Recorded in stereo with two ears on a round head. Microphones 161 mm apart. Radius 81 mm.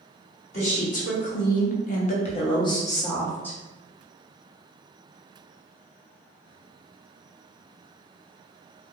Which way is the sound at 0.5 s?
40° left (ahead or behind).